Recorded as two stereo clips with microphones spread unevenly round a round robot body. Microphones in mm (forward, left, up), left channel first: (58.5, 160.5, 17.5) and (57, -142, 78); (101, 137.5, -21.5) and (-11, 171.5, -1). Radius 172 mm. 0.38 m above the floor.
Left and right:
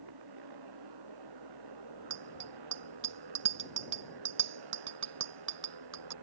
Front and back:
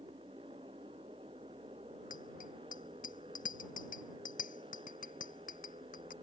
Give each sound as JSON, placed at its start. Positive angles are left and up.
{"t": 0.0, "sound": "a motorcycle", "azimuth_deg": -120}
{"t": 2.1, "sound": "a bicycle bell", "azimuth_deg": -50}